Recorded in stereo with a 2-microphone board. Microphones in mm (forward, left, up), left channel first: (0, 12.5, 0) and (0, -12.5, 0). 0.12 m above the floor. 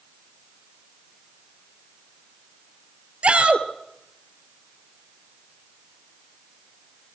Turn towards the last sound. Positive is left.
turn(degrees=-50)  # may be behind; listen again after turning